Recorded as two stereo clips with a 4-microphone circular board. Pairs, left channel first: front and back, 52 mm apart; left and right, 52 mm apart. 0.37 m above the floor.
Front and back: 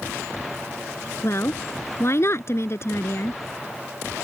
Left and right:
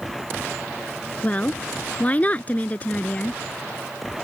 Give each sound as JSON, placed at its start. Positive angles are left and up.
{"t": 1.2, "sound": "a woman speaking", "azimuth_deg": 30}